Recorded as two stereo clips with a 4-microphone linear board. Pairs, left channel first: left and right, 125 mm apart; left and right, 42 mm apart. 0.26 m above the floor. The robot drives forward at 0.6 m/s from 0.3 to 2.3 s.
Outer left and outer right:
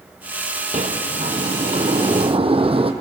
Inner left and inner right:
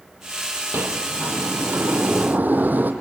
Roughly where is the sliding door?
Right.